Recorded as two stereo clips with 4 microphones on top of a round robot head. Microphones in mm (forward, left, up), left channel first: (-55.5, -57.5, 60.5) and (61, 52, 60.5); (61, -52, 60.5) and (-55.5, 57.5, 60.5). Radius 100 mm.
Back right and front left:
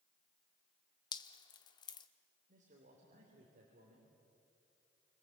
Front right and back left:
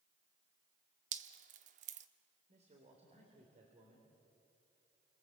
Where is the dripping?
165° left, 0.5 m.